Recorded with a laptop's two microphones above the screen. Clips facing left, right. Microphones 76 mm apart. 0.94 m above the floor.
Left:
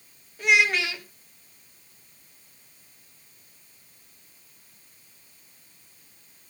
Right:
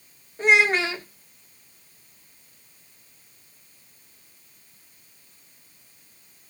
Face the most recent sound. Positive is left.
turn(degrees=-35)  # may be behind; listen again after turning